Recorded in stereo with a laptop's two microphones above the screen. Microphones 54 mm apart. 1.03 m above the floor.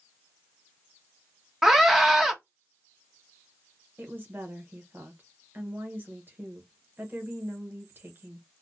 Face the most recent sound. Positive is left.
turn(degrees=-40)  # may be behind; listen again after turning